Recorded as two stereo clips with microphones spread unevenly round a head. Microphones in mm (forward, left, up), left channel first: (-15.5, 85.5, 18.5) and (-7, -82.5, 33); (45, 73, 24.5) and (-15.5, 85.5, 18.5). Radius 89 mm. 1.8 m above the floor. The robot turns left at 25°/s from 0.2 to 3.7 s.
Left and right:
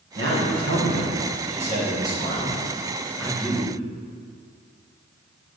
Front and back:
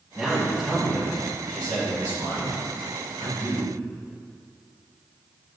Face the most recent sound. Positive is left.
turn(degrees=175)